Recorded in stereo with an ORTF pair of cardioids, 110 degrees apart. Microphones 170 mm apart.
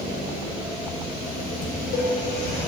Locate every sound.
1.6 s dishes clattering: 65° left, 1.4 m